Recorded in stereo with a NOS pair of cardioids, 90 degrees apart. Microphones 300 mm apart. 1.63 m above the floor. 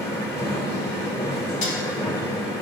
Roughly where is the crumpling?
I don't hear crumpling.